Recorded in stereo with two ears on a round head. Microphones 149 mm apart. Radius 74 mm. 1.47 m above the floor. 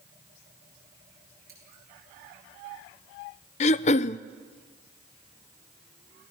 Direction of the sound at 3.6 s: 40° left (ahead or behind).